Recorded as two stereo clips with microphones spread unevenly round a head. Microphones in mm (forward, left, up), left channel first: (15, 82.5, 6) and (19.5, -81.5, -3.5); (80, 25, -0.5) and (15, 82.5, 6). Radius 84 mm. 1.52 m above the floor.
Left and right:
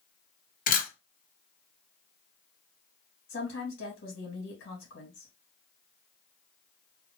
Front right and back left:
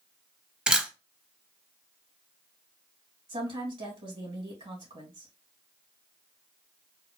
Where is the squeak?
I don't hear a squeak.